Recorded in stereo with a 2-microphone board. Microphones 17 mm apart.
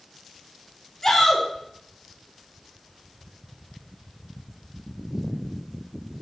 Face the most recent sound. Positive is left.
turn(degrees=25)  # may be behind; listen again after turning